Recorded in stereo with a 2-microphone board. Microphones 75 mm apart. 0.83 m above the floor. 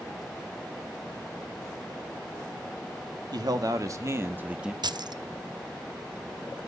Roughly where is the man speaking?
Right.